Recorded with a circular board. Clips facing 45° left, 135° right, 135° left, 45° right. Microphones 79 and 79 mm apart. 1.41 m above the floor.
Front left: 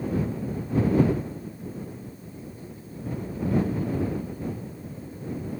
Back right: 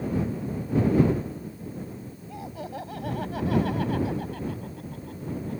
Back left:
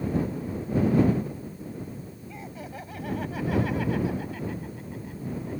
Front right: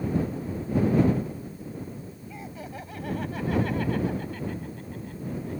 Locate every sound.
2.3 s laughter: 135° right; by 5.6 s 145° right